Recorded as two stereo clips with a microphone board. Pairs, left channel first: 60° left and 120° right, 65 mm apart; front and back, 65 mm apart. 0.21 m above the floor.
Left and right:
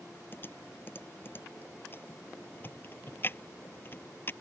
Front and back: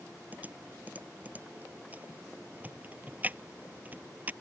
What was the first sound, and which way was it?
Typing on a keyboard, 115° left.